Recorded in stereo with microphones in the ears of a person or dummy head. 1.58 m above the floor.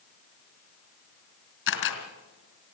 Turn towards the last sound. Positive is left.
turn(degrees=65)  # may be behind; listen again after turning